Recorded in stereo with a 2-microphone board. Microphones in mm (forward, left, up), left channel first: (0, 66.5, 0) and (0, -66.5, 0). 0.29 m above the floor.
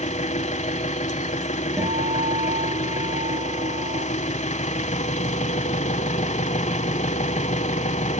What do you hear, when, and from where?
0.0 s an engine running: 65° left (ahead or behind), 1.0 m
1.8 s a guitar: 25° right (ahead or behind), 2.5 m